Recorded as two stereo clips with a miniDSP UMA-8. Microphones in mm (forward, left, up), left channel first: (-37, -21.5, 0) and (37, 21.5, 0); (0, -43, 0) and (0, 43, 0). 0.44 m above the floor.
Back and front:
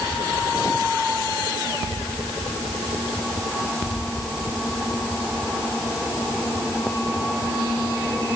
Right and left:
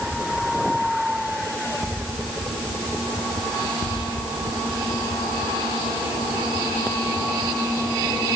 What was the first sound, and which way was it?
Only background noise.